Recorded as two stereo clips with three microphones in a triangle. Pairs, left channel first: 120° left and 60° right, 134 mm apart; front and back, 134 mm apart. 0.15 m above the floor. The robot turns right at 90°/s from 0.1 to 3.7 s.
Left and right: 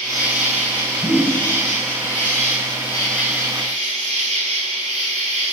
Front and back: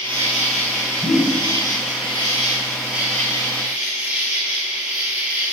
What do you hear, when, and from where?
0.0 s an insect: 70° right, 1.5 m; by 5.5 s 105° right, 1.5 m
1.0 s a whoosh: 40° left, 2.5 m; by 1.4 s 75° left, 2.5 m